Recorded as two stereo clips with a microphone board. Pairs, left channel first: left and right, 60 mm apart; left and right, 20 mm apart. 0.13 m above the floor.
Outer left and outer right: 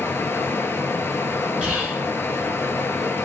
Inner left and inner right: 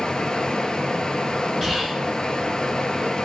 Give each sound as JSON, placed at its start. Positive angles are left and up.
{"t": 0.0, "sound": "running water", "side_deg": 40, "distance_m": 0.7}
{"t": 1.6, "sound": "whispering", "side_deg": -15, "distance_m": 1.7}